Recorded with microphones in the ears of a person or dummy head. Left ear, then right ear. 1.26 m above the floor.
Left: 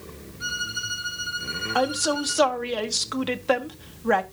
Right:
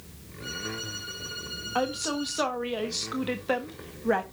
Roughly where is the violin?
Left.